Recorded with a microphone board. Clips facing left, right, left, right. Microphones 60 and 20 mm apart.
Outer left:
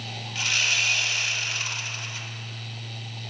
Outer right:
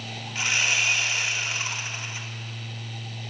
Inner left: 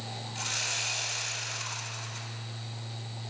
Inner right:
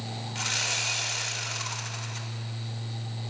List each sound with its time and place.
0.3 s sawing: 25° right (ahead or behind), 0.7 m